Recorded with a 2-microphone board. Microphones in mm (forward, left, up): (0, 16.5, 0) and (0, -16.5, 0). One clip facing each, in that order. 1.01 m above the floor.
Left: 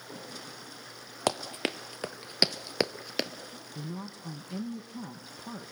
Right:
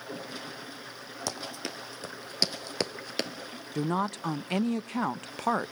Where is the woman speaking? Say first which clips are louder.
Right 12 dB; 70° right (ahead or behind), 0.6 m.